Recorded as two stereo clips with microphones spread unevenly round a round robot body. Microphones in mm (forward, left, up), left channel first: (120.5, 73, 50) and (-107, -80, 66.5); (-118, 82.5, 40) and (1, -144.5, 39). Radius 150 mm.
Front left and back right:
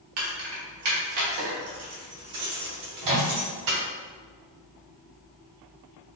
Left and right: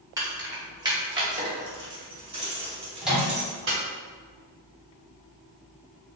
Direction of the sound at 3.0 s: 150° right.